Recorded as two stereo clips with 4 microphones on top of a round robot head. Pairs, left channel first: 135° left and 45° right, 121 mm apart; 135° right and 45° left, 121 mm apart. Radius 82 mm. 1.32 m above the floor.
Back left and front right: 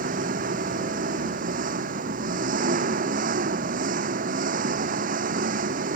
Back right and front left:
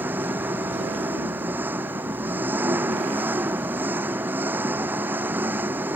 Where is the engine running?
30° right.